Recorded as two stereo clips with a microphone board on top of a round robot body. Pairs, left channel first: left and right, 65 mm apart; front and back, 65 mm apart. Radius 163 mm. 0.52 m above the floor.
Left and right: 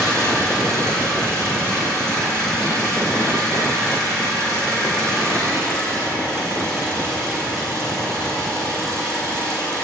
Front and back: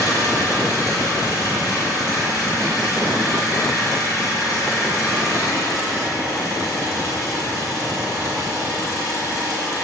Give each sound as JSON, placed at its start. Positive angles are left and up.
{"t": 0.0, "sound": "an engine running", "azimuth_deg": -40, "distance_m": 8.5}